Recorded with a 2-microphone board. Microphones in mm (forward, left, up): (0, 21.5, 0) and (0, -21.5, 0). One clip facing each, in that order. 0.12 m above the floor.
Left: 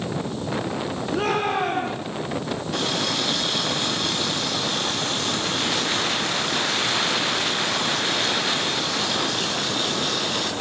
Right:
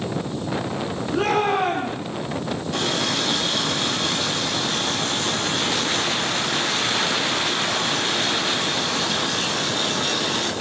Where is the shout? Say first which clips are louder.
Right 3 dB; 5° left (ahead or behind), 5.5 m.